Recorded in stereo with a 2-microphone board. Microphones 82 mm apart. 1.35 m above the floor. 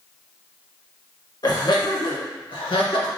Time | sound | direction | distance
1.4 | laughter | 55° left (ahead or behind) | 1.3 m